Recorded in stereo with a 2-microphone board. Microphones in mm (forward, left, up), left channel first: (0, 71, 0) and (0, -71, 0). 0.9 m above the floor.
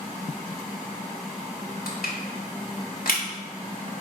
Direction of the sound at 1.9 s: 80° left.